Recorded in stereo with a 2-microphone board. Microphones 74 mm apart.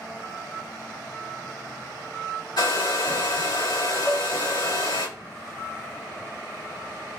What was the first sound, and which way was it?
A hair dryer, 75° left (ahead or behind).